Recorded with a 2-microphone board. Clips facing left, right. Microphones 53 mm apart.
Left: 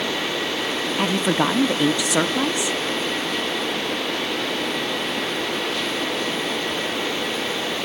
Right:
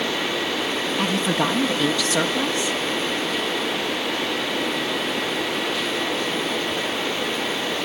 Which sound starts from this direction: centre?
A woman speaking, at 1.0 s.